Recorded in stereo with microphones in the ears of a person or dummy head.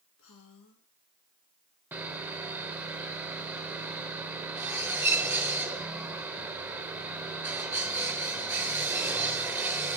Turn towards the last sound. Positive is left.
turn(degrees=-10)  # may be behind; listen again after turning